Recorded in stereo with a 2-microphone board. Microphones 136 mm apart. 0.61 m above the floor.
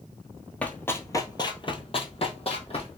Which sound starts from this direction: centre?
Running footsteps, at 0.6 s.